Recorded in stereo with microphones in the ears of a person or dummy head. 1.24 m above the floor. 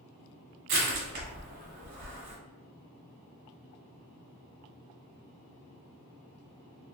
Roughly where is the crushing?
Right.